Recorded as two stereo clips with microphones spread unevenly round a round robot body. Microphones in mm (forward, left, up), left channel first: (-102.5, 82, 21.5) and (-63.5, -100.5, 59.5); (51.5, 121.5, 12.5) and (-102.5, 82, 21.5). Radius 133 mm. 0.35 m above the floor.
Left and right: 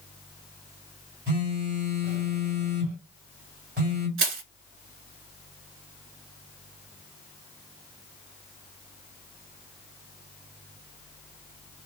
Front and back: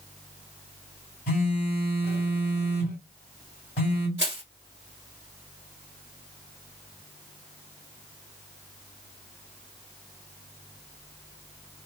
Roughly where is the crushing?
Right.